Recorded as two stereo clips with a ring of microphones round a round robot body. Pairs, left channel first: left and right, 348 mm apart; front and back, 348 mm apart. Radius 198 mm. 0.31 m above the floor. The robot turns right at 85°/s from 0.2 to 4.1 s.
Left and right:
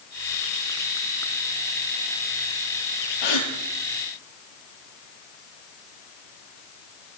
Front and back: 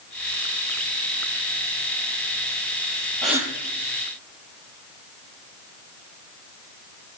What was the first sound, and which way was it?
A gasp, 85° left.